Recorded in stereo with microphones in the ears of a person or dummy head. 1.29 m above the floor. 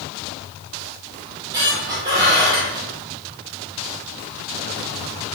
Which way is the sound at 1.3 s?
20° right (ahead or behind).